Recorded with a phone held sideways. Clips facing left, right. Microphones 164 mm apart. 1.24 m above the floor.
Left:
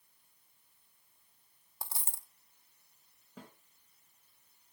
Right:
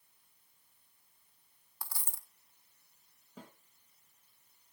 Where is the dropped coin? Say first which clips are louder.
Left 2 dB; 25° left (ahead or behind), 0.7 m.